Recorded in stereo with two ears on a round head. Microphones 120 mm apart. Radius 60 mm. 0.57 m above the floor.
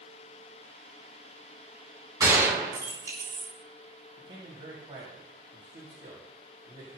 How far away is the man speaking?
About 3 m.